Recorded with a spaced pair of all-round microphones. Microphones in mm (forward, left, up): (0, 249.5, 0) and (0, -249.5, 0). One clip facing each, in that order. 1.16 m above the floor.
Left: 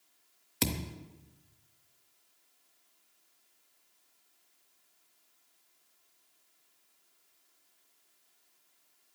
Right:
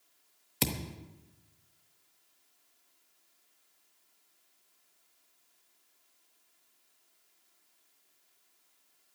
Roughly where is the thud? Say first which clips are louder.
Left 1 dB; centre.